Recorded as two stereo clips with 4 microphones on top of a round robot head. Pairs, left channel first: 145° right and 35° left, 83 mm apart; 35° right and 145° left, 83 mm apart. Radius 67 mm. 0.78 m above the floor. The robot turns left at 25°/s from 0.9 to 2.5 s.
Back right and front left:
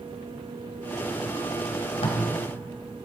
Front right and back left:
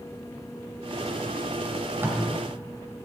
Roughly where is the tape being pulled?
Behind right.